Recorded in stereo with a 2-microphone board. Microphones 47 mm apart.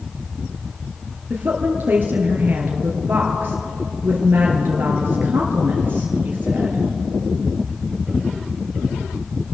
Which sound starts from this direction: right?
A woman speaking, at 1.3 s.